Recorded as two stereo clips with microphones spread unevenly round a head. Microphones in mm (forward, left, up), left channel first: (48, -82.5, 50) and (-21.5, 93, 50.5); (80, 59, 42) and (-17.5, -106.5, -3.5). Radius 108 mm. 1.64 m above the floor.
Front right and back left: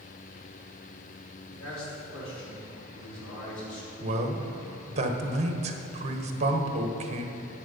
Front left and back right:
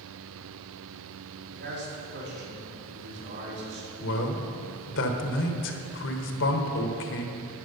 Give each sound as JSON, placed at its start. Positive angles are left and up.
{"t": 1.5, "sound": "a man speaking", "azimuth_deg": -90, "distance_m": 4.0}
{"t": 4.0, "sound": "a man speaking", "azimuth_deg": 55, "distance_m": 1.2}